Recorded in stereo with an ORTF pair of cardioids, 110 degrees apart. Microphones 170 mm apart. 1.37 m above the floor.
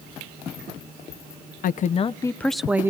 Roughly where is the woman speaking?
Ahead left.